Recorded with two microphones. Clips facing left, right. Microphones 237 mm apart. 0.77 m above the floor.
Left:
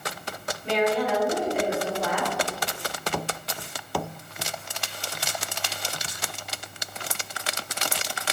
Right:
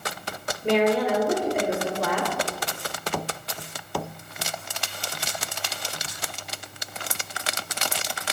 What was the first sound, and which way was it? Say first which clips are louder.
A woman speaking: right 3 dB; 65° right (ahead or behind).